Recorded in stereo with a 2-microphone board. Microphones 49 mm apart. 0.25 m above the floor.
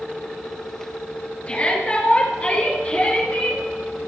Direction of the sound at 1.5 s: 25° left (ahead or behind).